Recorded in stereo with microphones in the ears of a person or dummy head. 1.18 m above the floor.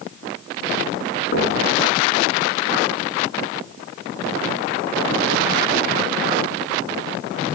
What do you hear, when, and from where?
1.3 s knocking: 50° left (ahead or behind), 8 m